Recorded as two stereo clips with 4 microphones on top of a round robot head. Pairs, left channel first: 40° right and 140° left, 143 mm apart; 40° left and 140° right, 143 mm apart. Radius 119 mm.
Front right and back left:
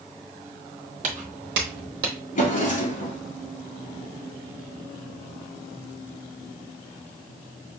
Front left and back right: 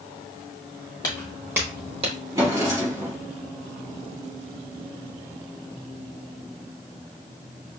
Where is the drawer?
70° right, 3 m.